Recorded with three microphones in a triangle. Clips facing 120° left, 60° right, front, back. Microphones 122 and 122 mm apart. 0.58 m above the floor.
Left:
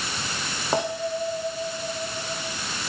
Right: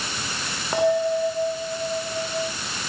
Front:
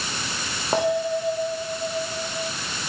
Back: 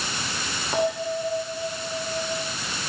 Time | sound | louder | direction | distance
0.7 | a bell | right 6 dB, front 3 dB | 50° left | 10 m